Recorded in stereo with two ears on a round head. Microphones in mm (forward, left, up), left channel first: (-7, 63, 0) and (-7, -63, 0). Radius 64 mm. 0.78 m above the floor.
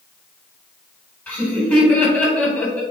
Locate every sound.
1.3 s laughter: 15° left (ahead or behind), 3.5 m